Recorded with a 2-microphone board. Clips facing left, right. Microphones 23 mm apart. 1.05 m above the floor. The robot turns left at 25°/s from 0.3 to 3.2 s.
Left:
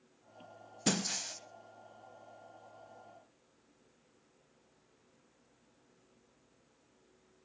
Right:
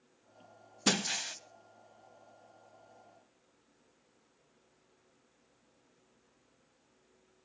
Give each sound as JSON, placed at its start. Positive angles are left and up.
{"t": 0.9, "sound": "breaking glass", "side_deg": -35, "distance_m": 1.1}